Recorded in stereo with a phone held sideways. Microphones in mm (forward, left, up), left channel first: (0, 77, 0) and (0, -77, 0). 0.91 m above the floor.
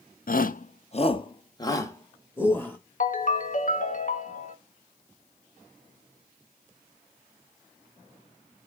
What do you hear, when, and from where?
0.3 s a shout: 65° left (ahead or behind), 0.5 m; by 2.8 s 10° left (ahead or behind), 1.7 m
3.0 s a ringtone: 55° left (ahead or behind), 0.8 m